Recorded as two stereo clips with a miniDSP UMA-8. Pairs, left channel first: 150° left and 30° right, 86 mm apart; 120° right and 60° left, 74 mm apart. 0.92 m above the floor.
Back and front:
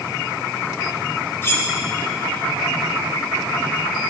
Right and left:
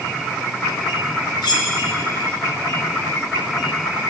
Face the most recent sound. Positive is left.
turn(degrees=-145)